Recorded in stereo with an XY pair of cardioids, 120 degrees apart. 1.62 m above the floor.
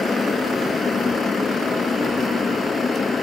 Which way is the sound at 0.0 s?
30° left.